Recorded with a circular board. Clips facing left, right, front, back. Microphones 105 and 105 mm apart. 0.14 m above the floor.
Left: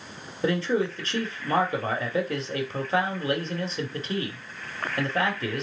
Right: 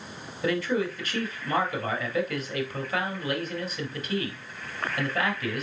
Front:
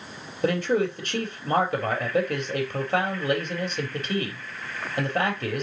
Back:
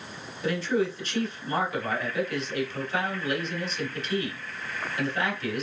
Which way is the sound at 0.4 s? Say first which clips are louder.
Left 2 dB, front 3 dB; 30° left.